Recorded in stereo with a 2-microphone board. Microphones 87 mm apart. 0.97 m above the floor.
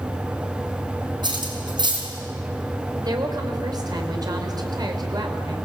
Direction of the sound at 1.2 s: 60° right (ahead or behind).